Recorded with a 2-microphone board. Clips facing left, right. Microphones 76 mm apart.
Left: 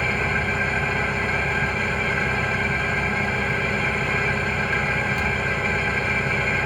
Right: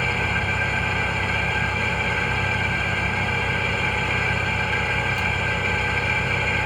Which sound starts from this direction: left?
An engine running, at 0.0 s.